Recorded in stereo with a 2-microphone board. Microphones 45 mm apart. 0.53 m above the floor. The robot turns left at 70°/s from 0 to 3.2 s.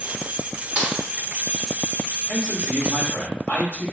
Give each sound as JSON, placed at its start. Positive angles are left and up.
{"t": 0.8, "sound": "a snare drum", "side_deg": -30, "distance_m": 1.0}
{"t": 2.3, "sound": "a man speaking", "azimuth_deg": 125, "distance_m": 1.8}